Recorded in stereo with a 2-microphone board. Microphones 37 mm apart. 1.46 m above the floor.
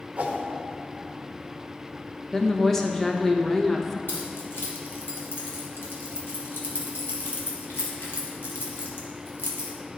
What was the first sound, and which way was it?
A whoosh, 40° right (ahead or behind).